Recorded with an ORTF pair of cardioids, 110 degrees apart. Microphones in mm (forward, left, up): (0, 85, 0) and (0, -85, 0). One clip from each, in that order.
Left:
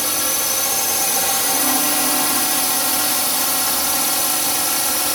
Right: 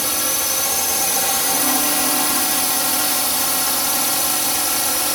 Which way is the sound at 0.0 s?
Straight ahead.